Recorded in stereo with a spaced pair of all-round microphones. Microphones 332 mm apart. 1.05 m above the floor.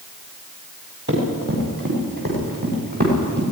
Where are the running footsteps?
30° right (ahead or behind), 9 m; by 3.4 s 25° right (ahead or behind), 10 m.